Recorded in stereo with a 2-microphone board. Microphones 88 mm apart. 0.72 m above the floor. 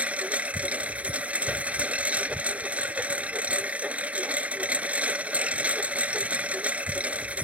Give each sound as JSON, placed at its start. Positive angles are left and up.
{"t": 0.0, "sound": "a lawn mower", "side_deg": -15}